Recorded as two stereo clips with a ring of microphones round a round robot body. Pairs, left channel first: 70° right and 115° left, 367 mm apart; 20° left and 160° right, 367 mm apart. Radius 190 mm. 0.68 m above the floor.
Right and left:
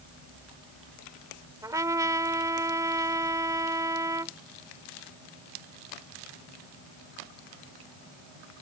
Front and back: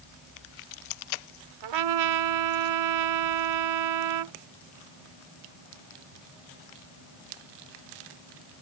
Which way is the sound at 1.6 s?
165° right.